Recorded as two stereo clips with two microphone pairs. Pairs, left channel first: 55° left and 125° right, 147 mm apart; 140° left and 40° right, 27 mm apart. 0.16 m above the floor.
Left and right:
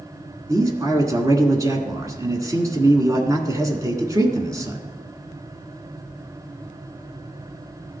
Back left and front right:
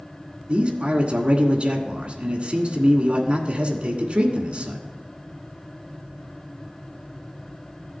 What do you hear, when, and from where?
0.5 s a man speaking: 65° right, 1.4 m